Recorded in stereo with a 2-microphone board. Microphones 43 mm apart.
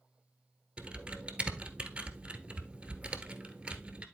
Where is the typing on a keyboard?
25° right (ahead or behind), 1.2 m.